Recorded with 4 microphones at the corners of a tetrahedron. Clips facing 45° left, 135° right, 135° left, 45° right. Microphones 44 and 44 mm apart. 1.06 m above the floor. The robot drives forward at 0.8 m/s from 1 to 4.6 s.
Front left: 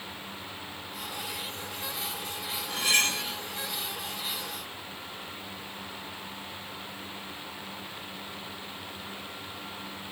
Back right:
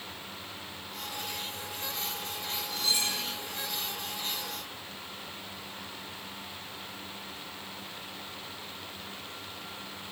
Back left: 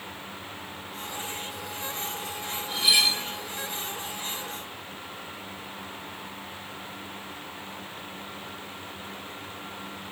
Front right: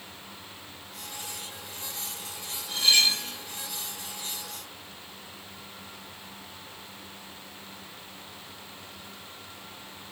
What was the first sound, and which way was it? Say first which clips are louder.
Cutlery clinking: front left 6 dB, even; 50° left.